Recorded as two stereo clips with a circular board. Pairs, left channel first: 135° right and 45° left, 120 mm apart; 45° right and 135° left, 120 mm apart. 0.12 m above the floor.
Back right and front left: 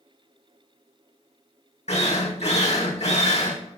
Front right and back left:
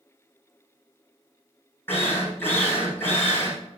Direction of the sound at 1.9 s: 115° right.